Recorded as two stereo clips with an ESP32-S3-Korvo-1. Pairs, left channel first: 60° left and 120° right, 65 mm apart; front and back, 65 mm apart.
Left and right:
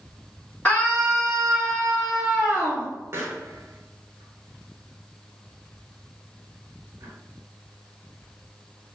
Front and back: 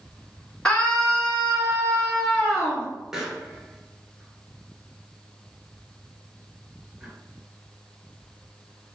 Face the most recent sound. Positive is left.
turn(degrees=-100)